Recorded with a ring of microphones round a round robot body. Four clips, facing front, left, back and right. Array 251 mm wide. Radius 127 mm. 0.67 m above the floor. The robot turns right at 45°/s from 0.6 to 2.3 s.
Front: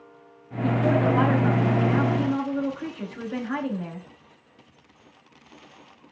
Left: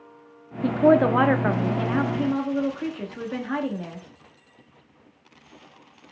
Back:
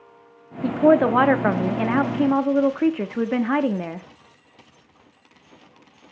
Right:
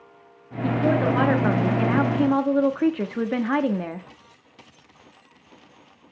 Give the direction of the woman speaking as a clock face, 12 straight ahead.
7 o'clock.